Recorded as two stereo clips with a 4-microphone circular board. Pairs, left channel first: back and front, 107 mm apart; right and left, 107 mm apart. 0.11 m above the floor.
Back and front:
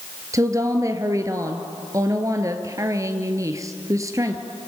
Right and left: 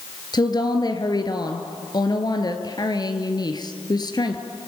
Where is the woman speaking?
50° right, 1.7 m.